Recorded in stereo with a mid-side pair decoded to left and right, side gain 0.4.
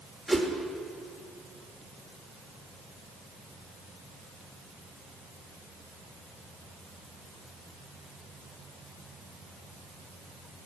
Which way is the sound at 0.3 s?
5° left.